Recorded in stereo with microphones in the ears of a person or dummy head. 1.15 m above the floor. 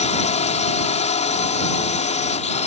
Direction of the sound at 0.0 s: 35° left (ahead or behind).